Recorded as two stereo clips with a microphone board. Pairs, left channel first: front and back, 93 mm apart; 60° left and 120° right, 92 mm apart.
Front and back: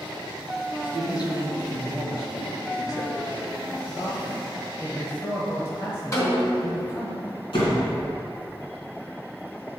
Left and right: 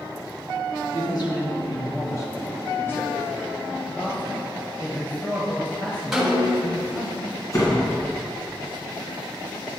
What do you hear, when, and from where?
0.9 s a man speaking: 35° left, 2 m; by 3.6 s 15° right, 1.5 m
3.9 s a man speaking: 10° left, 1.1 m
6.1 s a snare drum: 35° right, 2 m
7.5 s a door slam: 10° left, 2.5 m